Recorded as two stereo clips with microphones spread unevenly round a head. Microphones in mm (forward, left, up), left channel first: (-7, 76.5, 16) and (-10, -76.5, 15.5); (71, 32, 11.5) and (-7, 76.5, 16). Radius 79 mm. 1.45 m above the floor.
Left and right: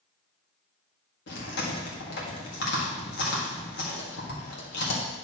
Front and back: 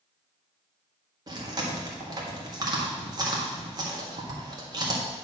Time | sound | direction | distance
1.3 | chewing | 105° left | 1.8 m